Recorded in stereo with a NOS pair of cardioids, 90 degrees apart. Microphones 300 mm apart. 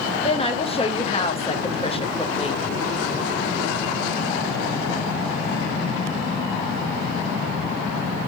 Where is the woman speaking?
20° left, 0.9 m.